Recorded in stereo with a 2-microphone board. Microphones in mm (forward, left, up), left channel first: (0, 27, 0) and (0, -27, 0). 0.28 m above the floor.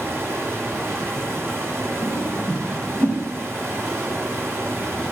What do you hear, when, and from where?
0.0 s running water: 55° right (ahead or behind), 1.4 m
2.0 s a whoosh: 35° right (ahead or behind), 1.8 m